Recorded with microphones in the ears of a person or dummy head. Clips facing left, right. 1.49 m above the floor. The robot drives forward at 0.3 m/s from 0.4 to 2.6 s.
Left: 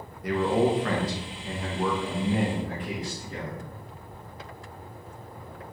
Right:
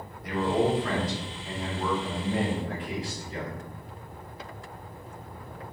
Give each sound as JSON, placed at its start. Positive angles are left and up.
{"t": 0.2, "sound": "a man speaking", "side_deg": 60, "distance_m": 0.7}